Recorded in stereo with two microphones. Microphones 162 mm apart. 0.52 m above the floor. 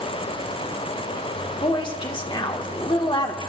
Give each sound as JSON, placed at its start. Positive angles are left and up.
{"t": 1.6, "sound": "a woman speaking", "side_deg": 30, "distance_m": 1.5}